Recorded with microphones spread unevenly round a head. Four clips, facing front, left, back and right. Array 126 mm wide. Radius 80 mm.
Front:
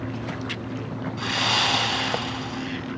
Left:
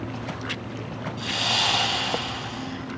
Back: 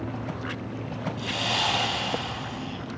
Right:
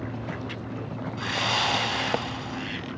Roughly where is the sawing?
Ahead.